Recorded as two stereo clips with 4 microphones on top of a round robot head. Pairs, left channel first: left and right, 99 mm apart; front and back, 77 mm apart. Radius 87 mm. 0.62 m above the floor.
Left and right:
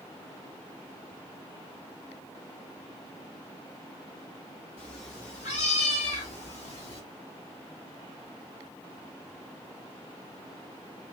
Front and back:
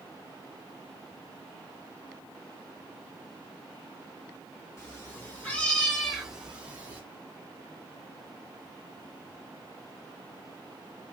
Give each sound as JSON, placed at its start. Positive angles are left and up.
{"t": 4.8, "sound": "a cat meowing", "azimuth_deg": 50, "distance_m": 1.7}